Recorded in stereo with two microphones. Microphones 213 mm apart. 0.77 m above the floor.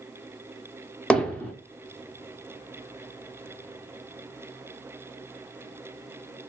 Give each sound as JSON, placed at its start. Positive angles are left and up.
{"t": 1.1, "sound": "hammering", "side_deg": 5, "distance_m": 0.9}